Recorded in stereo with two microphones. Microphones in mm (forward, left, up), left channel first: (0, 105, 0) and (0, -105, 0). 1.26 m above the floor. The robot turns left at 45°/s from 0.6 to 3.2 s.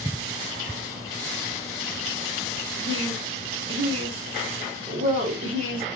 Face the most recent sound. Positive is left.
turn(degrees=-80)